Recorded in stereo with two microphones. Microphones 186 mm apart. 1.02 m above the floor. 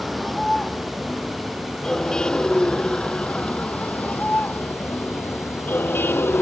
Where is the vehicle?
Centre (ahead or behind); by 6.4 s 10° left (ahead or behind).